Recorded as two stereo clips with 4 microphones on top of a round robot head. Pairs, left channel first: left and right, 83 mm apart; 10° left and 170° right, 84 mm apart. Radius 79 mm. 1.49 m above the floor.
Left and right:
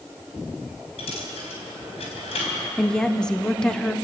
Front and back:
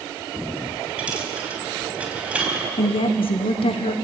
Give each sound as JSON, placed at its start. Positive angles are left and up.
{"t": 1.0, "sound": "a dropped coin", "azimuth_deg": 115, "distance_m": 4.5}
{"t": 2.8, "sound": "a woman speaking", "azimuth_deg": 10, "distance_m": 1.1}